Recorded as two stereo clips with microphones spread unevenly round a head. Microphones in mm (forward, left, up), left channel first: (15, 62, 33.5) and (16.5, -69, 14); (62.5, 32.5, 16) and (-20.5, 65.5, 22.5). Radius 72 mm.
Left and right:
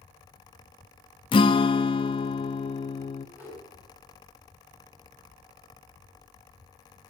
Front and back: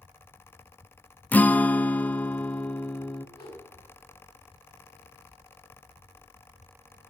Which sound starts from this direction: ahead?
A whoosh, at 3.4 s.